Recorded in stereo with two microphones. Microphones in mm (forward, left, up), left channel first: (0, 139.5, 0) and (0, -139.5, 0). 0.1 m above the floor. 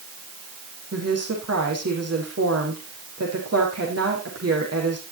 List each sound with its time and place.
0.9 s a woman speaking: 60° right (ahead or behind), 5.5 m